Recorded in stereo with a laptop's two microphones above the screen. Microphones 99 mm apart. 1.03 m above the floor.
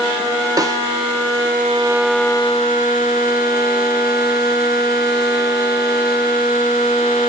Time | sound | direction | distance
0.6 | a snare drum | 40° right (ahead or behind) | 0.5 m